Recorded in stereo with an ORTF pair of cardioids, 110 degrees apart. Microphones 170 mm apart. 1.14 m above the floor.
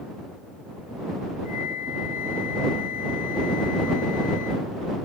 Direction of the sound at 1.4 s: 55° left.